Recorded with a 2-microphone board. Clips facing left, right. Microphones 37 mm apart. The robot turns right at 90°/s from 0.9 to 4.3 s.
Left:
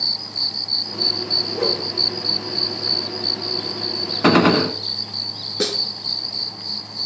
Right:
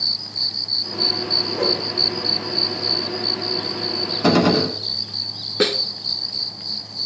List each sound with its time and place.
1.5 s a whoosh: 80° right, 5 m; by 1.8 s 70° right (ahead or behind), 5 m
4.2 s a gunshot: 40° left (ahead or behind), 0.7 m
5.6 s a snare drum: 35° right (ahead or behind), 0.6 m